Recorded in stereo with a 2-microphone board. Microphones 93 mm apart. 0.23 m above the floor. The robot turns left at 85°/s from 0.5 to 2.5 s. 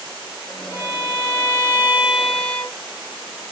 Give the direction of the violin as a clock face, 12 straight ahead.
1 o'clock.